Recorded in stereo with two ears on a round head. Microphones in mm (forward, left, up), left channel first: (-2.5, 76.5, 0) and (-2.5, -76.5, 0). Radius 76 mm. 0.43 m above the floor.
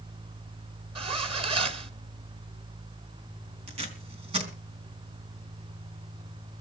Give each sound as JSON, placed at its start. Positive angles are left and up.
{"t": 0.9, "sound": "a zipper", "side_deg": -35, "distance_m": 1.3}
{"t": 3.7, "sound": "tape being pulled", "side_deg": -35, "distance_m": 3.5}